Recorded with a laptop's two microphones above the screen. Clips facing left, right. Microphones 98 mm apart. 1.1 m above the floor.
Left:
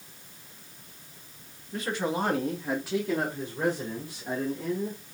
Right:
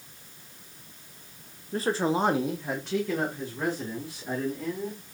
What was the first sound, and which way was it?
A man speaking, 40° right (ahead or behind).